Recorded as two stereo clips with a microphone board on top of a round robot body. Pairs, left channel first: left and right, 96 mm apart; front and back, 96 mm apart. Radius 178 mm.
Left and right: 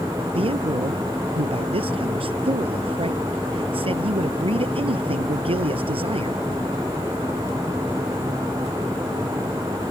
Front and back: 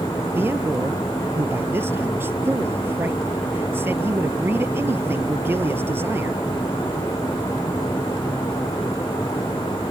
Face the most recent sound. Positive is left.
turn(degrees=-110)